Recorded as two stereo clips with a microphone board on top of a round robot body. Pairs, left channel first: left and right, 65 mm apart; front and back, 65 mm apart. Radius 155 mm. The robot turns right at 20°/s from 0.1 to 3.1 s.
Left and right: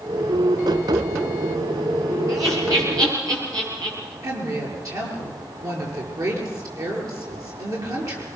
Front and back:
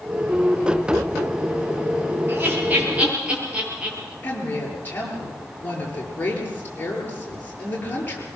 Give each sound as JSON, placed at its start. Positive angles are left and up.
{"t": 2.3, "sound": "laughter", "azimuth_deg": -125, "distance_m": 8.0}
{"t": 4.2, "sound": "a woman speaking", "azimuth_deg": -65, "distance_m": 7.5}